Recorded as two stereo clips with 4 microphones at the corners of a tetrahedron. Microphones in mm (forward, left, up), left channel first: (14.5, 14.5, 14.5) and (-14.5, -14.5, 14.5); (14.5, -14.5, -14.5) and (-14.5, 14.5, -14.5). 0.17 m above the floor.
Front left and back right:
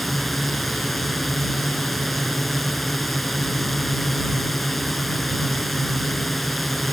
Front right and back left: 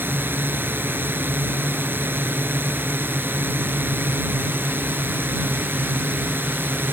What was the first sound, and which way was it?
A drone, 130° left.